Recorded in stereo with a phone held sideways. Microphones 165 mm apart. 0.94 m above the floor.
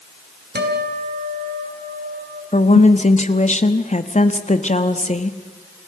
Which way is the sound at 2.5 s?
45° left (ahead or behind).